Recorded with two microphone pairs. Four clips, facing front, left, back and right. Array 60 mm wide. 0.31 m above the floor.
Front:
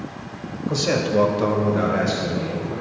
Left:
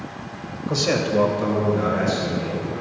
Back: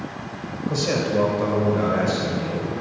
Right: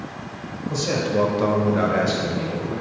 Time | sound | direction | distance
0.7 | a man speaking | 70° left | 1.4 m